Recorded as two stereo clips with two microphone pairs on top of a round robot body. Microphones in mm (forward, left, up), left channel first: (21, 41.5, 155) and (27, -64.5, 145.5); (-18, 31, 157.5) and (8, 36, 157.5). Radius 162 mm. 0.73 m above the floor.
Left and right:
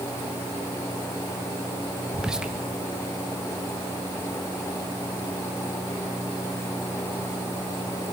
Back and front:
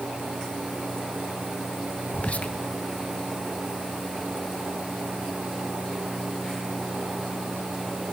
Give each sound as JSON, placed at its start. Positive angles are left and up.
{"t": 2.1, "sound": "whispering", "azimuth_deg": -165, "distance_m": 0.8}